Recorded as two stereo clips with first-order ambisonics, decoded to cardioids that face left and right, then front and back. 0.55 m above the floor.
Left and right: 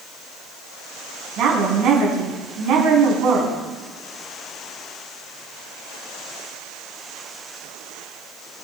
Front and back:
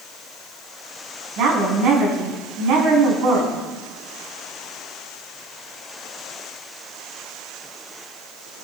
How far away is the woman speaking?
About 4.5 m.